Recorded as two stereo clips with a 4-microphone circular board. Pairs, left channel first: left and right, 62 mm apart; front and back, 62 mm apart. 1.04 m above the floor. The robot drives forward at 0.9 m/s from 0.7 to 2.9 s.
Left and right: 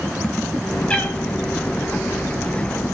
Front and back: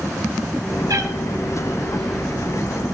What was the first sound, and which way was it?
A cat meowing, 160° left.